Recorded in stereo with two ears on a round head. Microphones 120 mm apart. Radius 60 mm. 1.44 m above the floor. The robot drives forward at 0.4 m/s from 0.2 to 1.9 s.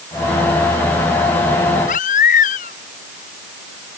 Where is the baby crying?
65° left (ahead or behind).